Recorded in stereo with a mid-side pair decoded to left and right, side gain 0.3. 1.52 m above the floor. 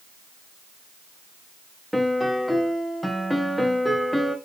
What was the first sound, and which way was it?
A piano, straight ahead.